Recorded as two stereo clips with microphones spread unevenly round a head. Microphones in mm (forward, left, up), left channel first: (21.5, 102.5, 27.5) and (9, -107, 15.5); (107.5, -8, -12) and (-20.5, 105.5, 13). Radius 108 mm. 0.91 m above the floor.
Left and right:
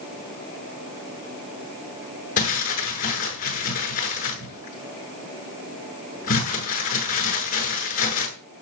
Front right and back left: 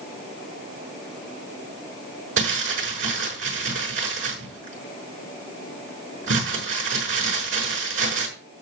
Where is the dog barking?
I don't hear a dog barking.